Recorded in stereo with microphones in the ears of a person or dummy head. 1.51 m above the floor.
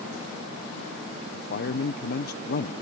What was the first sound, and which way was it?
A man speaking, 55° left (ahead or behind).